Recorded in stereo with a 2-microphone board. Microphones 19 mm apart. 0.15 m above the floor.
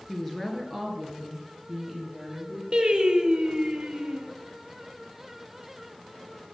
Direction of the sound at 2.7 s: 40° right (ahead or behind).